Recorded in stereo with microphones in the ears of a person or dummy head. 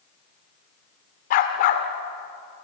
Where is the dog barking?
40° left (ahead or behind), 1.9 m.